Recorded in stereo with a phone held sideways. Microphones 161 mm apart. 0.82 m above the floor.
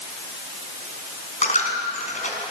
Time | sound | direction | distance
1.4 | a dropped coin | 50° left (ahead or behind) | 4.5 m